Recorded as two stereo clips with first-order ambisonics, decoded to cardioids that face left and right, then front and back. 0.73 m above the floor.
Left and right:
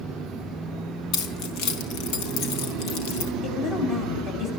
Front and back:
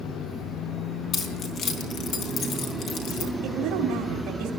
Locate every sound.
1.1 s keys jangling: 60° left, 4 m
3.4 s a woman speaking: 145° left, 4 m